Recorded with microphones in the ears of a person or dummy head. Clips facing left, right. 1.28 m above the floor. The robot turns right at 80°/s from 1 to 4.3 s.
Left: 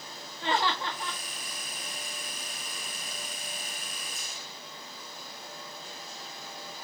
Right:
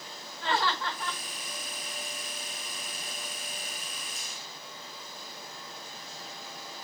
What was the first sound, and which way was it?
Laughter, 20° left (ahead or behind).